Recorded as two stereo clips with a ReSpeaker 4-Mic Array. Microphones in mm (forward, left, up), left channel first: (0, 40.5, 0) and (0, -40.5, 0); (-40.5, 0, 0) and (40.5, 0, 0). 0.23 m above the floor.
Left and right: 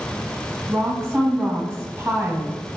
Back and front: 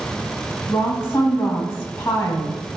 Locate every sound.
0.7 s a woman speaking: 130° right, 1.4 m